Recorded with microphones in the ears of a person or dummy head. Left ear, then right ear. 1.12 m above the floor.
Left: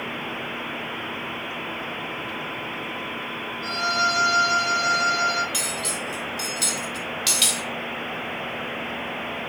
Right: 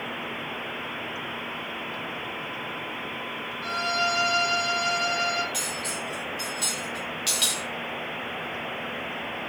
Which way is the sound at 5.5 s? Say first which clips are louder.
Left 3 dB; 10° left (ahead or behind).